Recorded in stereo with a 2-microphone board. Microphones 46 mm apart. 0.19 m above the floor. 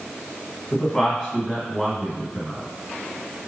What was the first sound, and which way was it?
A man speaking, 10° left (ahead or behind).